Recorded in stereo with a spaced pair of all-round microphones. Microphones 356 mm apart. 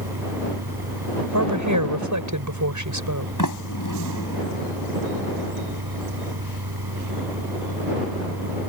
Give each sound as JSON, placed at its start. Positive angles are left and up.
{"t": 0.0, "sound": "a fan", "side_deg": -85}
{"t": 1.3, "sound": "a woman speaking", "side_deg": -55}
{"t": 3.4, "sound": "a sliding door", "side_deg": 60}